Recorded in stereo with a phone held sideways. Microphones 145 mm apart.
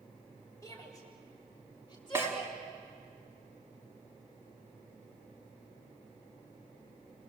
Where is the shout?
25° left (ahead or behind), 6.5 m; by 2.5 s 35° left (ahead or behind), 7 m.